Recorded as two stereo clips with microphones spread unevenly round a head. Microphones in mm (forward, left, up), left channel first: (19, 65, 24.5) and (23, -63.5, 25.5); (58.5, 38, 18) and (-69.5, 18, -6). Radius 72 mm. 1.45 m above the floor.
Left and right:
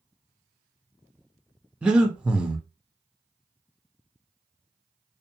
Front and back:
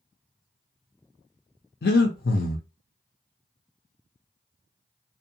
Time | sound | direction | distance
1.8 | breathing | 5° right | 0.5 m